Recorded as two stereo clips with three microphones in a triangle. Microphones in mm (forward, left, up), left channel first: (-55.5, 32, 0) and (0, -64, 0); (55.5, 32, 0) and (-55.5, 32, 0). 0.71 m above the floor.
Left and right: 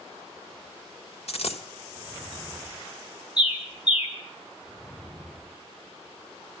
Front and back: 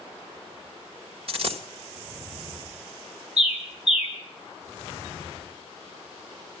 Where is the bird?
170° left, 3.5 m.